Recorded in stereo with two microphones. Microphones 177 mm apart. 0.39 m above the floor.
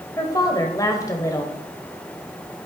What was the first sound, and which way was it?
A woman speaking, 20° left (ahead or behind).